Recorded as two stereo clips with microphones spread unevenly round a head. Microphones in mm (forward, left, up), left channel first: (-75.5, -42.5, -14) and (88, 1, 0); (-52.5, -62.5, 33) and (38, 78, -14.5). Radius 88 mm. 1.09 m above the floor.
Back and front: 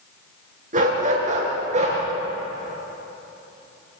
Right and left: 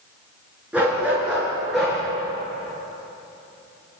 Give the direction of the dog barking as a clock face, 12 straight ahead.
1 o'clock.